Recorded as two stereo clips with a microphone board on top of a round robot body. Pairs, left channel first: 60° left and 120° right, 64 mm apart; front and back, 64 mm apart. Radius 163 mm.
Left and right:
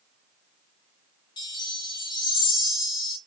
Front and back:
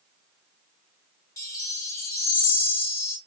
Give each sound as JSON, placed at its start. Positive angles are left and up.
{"t": 1.4, "sound": "a chime", "azimuth_deg": 45, "distance_m": 0.7}